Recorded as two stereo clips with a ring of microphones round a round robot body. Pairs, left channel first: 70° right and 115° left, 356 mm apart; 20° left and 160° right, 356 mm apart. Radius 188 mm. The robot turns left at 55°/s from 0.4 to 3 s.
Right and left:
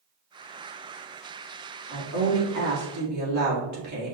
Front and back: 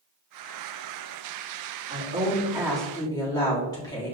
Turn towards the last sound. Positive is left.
turn(degrees=100)